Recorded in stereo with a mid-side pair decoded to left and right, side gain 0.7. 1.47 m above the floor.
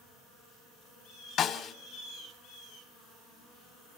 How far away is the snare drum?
About 2.5 m.